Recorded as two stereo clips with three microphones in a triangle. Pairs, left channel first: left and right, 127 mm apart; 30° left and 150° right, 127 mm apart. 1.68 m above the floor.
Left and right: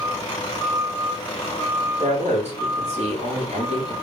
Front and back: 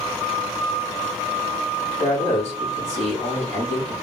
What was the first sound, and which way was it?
A man speaking, 120° right.